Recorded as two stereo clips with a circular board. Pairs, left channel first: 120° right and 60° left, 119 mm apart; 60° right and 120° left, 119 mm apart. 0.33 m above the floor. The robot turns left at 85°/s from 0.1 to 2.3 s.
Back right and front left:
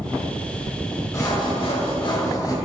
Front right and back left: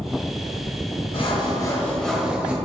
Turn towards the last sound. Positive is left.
turn(degrees=-165)